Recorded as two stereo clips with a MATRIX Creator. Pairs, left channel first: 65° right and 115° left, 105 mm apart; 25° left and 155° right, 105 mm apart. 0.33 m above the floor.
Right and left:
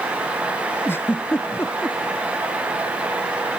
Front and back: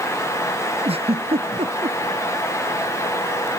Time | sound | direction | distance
0.8 | a giggle | 135° right | ?